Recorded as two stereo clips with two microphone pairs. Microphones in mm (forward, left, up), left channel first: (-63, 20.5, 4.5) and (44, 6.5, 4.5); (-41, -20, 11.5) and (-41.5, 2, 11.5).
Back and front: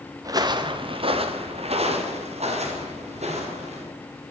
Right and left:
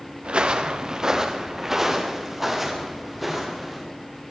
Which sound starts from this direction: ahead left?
Footsteps, at 0.2 s.